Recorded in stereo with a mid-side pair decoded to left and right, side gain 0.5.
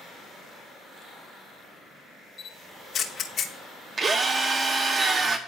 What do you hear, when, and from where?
2.4 s a camera shutter: 50° left, 0.9 m
4.0 s a drill: 40° right, 1.0 m